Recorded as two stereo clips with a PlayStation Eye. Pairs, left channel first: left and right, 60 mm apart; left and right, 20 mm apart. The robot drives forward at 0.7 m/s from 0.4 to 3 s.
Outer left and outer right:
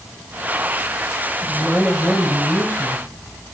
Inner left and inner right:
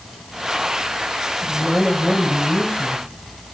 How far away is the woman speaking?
About 1.0 m.